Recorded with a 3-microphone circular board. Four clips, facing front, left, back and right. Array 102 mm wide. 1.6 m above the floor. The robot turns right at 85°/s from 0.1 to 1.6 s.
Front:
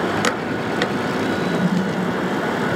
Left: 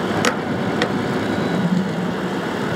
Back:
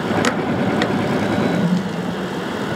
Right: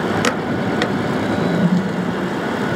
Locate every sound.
1.3 s a toilet flushing: 150° right, 8.5 m; by 2.0 s 125° right, 8.5 m